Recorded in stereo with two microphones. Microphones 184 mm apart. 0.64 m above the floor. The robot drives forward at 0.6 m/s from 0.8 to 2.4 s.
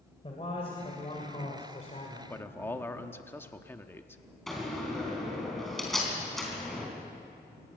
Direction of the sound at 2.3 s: 15° left (ahead or behind).